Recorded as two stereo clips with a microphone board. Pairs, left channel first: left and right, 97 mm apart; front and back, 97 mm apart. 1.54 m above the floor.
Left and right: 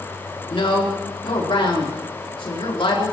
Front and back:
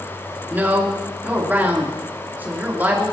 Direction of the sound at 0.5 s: 110° left.